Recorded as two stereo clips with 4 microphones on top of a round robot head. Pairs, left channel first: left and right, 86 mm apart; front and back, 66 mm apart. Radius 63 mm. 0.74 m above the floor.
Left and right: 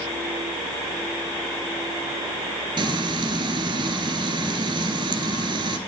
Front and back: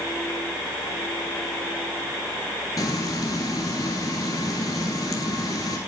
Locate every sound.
2.8 s frying: 60° right, 1.9 m